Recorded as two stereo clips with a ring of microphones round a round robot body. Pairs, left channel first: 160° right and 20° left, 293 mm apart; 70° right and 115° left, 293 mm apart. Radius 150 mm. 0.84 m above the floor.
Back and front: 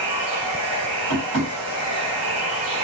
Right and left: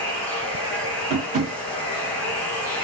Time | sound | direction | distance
0.0 | running water | 20° left | 1.1 m
1.1 | tapping | 50° left | 1.6 m